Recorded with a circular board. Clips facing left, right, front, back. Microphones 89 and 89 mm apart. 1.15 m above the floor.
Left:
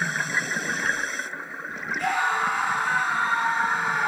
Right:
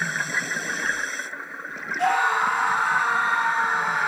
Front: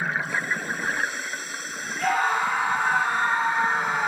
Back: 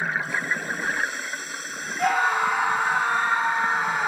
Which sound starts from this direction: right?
A scream, at 2.0 s.